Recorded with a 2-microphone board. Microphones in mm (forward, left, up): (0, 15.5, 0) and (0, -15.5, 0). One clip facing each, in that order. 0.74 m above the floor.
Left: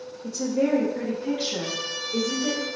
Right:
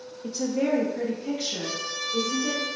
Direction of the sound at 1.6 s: Centre (ahead or behind).